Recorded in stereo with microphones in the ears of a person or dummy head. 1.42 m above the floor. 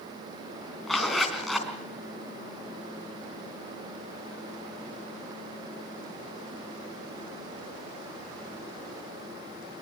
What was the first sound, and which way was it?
A zipper, centre (ahead or behind).